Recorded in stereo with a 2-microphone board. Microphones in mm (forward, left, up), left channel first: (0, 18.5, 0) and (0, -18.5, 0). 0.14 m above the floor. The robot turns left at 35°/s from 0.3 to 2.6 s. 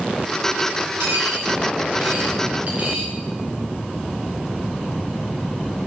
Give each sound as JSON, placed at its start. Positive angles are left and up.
{"t": 1.0, "sound": "a dropped coin", "side_deg": -80, "distance_m": 8.0}